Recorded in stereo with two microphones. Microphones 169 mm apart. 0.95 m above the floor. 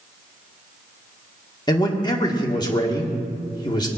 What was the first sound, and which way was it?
A man speaking, 25° left (ahead or behind).